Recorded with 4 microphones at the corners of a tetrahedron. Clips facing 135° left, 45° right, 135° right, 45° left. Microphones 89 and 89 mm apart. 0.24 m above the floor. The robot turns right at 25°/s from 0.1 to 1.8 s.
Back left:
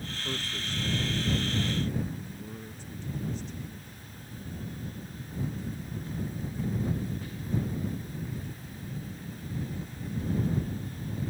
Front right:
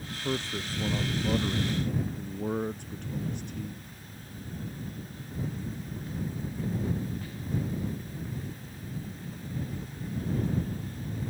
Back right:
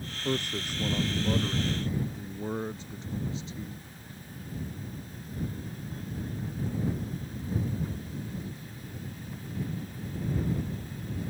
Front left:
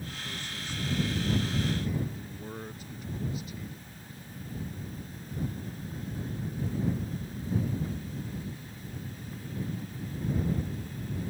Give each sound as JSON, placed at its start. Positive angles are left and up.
{"t": 0.2, "sound": "a man speaking", "azimuth_deg": -110}